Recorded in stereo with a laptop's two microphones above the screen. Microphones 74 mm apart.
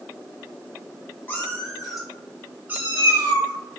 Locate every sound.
1.3 s a cat meowing: 25° left (ahead or behind), 1.2 m; by 3.5 s 40° right (ahead or behind), 1.6 m